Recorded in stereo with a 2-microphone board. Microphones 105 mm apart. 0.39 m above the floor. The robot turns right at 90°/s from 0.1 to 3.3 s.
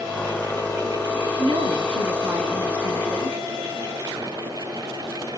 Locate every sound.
1.4 s a woman speaking: 110° right, 3 m; by 3.4 s 60° left, 3 m